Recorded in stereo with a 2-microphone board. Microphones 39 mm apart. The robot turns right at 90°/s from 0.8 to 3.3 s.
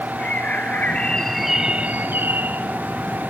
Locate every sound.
0.2 s a bird: 130° left, 1.0 m; by 2.6 s 65° right, 1.0 m